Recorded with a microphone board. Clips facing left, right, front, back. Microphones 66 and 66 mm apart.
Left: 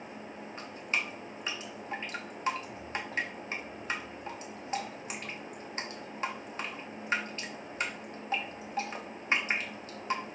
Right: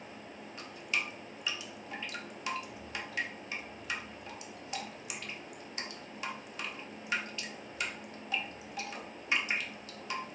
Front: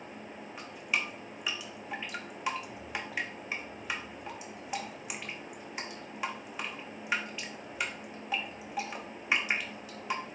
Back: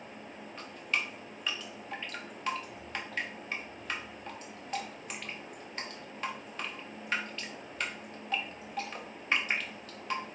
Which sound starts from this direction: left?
Dripping, at 0.6 s.